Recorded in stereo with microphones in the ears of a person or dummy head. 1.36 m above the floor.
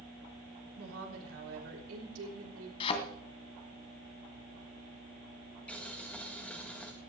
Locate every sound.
0.8 s a woman speaking: 90° right, 3.5 m
2.8 s a thud: 35° left (ahead or behind), 2 m
5.7 s boiling: 5° left (ahead or behind), 1.5 m